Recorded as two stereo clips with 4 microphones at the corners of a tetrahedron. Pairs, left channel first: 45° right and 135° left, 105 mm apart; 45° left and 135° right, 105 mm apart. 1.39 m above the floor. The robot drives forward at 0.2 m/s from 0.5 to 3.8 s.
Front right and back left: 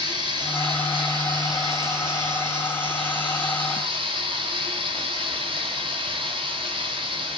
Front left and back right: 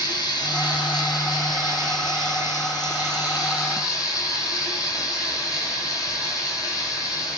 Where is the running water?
95° left, 6.5 m; by 7.4 s 100° left, 6.5 m.